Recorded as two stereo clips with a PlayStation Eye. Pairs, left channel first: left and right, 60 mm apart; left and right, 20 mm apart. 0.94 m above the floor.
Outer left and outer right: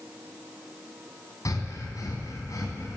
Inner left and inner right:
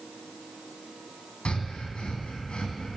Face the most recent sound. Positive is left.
turn(degrees=70)  # may be behind; listen again after turning